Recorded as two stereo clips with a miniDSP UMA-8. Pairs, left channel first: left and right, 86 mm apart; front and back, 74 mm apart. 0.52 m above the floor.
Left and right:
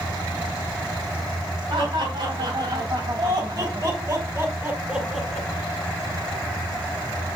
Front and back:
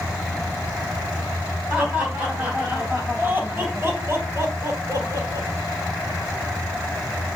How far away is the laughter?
About 3.5 m.